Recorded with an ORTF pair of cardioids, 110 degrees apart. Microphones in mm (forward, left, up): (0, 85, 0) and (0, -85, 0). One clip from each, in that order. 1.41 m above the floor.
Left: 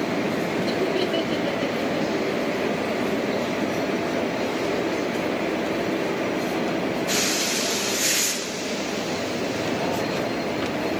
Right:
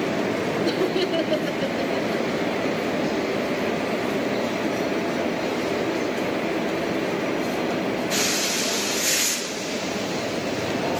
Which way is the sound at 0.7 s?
25° right.